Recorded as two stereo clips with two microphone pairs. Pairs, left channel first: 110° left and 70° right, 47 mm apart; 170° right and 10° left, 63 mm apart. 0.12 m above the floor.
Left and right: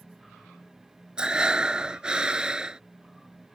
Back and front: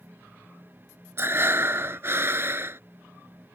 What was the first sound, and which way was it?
Breathing, 10° right.